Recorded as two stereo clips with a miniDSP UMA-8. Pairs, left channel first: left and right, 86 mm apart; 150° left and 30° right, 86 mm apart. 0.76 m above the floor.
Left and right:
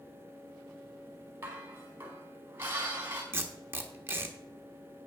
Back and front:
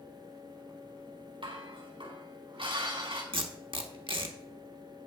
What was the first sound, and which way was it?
Dishes clattering, 25° right.